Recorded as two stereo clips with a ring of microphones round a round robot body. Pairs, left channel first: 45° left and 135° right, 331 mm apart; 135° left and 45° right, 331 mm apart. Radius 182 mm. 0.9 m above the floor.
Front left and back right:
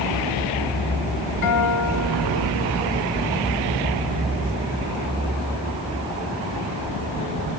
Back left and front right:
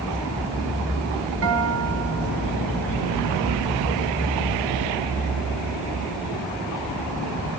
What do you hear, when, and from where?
1.4 s a guitar: 5° left, 2.0 m